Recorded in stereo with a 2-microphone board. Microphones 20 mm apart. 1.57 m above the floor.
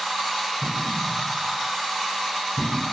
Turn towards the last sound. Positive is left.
turn(degrees=45)  # may be behind; listen again after turning